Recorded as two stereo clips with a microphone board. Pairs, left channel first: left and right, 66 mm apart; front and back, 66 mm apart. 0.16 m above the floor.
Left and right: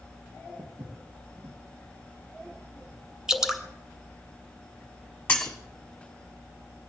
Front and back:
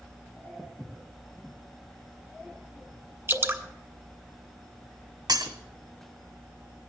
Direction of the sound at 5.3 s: 165° left.